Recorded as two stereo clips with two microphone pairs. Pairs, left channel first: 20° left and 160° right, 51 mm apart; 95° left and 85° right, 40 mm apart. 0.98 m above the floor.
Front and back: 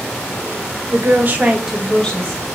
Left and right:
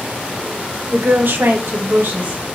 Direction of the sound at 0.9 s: 130° right.